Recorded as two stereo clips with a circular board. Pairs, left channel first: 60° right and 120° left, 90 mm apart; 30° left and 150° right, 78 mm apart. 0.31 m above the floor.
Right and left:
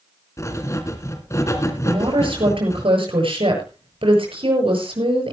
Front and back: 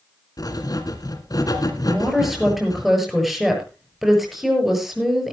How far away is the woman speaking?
About 7 m.